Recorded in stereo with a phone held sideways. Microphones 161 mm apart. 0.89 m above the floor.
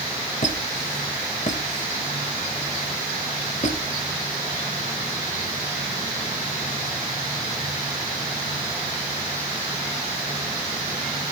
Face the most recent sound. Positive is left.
turn(degrees=50)  # may be behind; listen again after turning